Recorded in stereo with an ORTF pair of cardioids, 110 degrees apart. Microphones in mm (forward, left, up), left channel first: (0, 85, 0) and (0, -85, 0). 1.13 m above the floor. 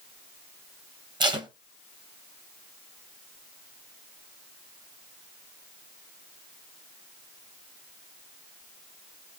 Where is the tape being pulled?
25° right, 1.0 m.